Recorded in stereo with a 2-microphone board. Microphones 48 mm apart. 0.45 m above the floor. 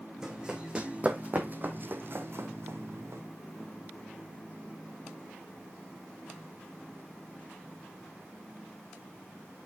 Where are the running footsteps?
15° right (ahead or behind), 1.4 m; by 3.2 s 70° right (ahead or behind), 1.5 m.